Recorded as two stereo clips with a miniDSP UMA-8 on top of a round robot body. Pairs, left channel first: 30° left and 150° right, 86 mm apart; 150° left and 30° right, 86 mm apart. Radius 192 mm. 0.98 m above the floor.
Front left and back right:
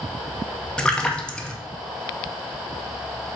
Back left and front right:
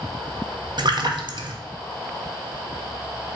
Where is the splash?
50° right, 1.1 m.